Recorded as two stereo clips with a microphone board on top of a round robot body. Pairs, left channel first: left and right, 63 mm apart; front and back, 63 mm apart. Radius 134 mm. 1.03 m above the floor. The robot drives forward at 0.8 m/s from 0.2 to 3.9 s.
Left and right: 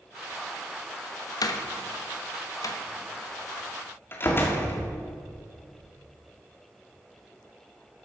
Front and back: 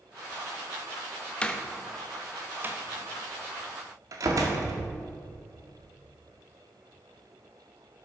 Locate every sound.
1.4 s a door slam: 70° left, 1.2 m; by 4.8 s 145° left, 2.0 m